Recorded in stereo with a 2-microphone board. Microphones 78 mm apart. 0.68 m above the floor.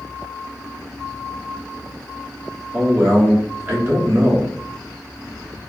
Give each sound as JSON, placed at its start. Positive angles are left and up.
{"t": 2.7, "sound": "a man speaking", "side_deg": -30, "distance_m": 1.3}